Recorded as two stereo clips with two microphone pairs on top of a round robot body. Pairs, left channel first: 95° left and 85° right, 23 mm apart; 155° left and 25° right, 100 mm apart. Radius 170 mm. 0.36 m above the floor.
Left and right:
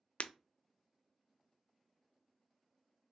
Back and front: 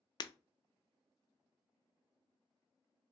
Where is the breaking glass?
110° left, 0.5 m.